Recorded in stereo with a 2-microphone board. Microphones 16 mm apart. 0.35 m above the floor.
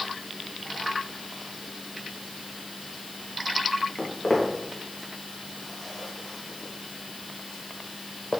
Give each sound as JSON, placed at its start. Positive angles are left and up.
{"t": 4.0, "sound": "footsteps", "side_deg": 25, "distance_m": 3.0}